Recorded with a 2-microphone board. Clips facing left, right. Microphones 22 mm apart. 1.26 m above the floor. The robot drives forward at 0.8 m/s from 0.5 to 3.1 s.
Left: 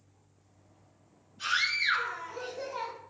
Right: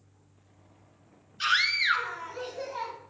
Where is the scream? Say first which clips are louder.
Right 3 dB; 55° right (ahead or behind), 0.6 m; by 2.9 s 15° right (ahead or behind), 1.6 m.